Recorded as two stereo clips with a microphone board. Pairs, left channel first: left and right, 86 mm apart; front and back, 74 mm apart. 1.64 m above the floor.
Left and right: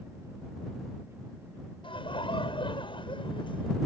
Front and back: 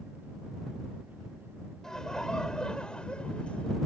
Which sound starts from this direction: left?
Laughter, at 1.8 s.